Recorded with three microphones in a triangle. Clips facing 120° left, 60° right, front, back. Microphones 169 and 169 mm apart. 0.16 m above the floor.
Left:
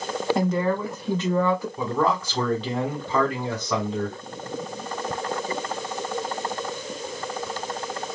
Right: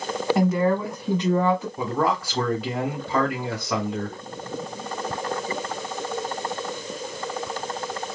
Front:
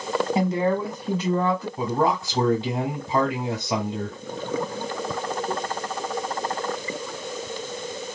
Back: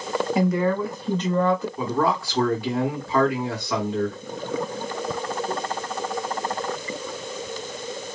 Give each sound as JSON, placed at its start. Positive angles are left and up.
{"t": 0.3, "sound": "a woman speaking", "azimuth_deg": 20, "distance_m": 1.4}
{"t": 1.8, "sound": "a man speaking", "azimuth_deg": 10, "distance_m": 1.7}